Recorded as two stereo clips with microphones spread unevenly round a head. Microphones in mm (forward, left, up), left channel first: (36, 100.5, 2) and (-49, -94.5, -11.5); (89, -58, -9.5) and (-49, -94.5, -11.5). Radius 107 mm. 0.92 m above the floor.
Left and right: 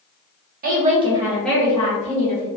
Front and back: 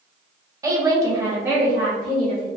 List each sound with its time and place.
0.6 s a woman speaking: 110° right, 0.9 m; by 2.5 s 105° left, 1.1 m